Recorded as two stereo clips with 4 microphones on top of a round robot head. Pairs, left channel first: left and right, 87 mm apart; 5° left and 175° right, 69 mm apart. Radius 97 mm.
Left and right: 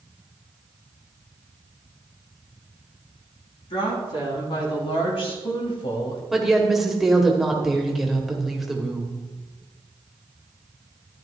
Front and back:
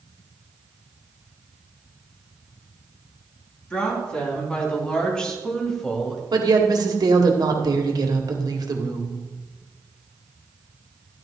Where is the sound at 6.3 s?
175° right, 1.7 m.